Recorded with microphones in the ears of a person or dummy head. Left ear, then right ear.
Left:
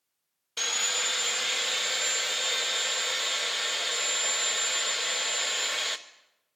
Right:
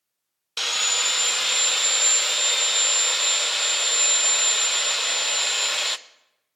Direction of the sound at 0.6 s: 20° right (ahead or behind).